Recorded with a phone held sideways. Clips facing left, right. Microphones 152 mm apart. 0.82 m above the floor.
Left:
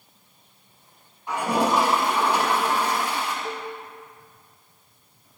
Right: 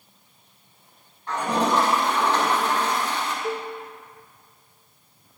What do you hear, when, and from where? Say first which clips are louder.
1.3 s a toilet flushing: even; 10° left (ahead or behind), 5.5 m
3.4 s a cowbell: right 4 dB; 30° right (ahead or behind), 1.9 m